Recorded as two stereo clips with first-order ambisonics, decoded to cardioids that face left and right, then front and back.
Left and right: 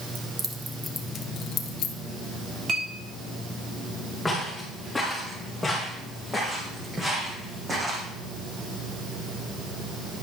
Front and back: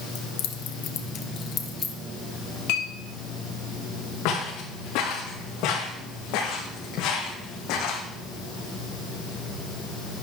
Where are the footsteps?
5° left, 5.5 m; by 8.1 s 20° right, 3.5 m.